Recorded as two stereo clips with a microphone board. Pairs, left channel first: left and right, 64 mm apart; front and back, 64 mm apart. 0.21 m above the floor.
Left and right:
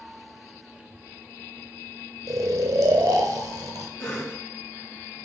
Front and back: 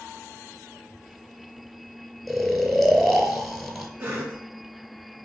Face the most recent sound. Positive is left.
turn(degrees=120)